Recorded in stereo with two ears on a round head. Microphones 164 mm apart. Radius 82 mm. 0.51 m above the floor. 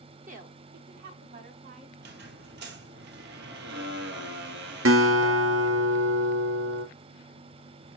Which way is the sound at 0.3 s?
45° right (ahead or behind).